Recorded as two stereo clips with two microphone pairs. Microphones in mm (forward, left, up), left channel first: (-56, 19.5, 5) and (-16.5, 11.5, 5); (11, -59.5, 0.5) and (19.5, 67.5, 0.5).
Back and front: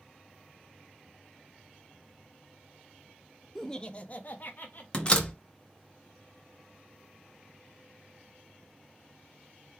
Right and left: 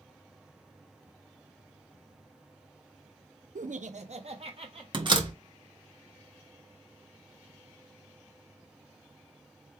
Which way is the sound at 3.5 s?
85° left.